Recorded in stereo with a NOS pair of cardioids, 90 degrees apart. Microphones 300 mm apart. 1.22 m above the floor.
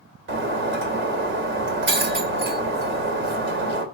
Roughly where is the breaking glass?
Ahead right.